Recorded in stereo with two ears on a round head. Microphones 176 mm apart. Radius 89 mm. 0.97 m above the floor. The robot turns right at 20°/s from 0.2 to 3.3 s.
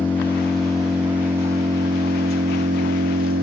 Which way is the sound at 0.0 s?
170° left.